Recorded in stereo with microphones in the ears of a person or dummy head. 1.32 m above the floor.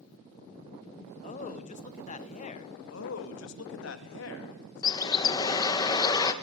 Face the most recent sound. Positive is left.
turn(degrees=20)  # may be behind; listen again after turning